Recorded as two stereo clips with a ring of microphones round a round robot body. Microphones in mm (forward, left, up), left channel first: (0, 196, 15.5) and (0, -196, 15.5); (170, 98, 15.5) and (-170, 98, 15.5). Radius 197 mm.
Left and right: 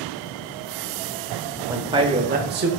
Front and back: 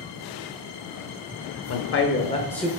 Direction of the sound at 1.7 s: 10° right.